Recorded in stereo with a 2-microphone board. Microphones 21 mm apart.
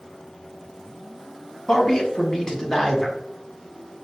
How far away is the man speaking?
About 1.3 m.